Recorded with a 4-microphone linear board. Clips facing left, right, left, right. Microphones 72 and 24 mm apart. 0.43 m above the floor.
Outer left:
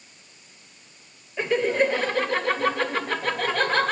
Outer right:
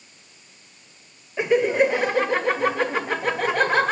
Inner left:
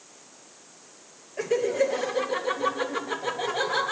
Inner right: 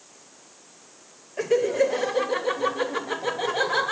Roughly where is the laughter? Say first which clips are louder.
Outer right 3 dB, inner right 3 dB; centre.